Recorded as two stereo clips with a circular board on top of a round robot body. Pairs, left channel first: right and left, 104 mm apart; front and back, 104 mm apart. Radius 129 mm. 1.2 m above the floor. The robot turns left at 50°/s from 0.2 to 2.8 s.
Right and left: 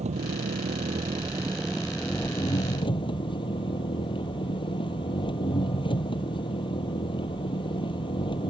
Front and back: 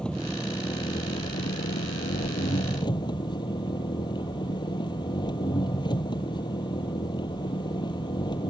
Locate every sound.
0.0 s an engine running: 80° left; by 8.5 s 50° right